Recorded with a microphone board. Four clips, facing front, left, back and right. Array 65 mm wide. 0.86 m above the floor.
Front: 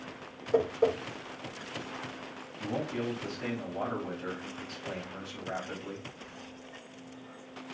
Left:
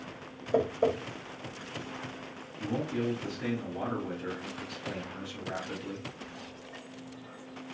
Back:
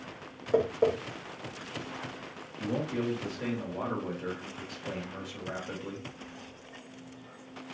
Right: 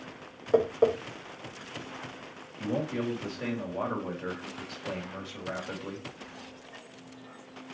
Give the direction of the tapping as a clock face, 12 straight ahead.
3 o'clock.